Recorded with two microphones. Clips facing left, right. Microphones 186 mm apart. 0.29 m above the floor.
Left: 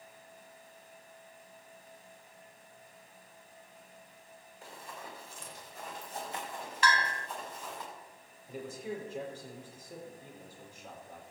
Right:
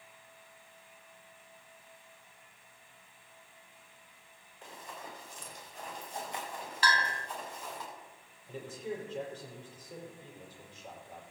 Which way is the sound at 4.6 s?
10° left (ahead or behind).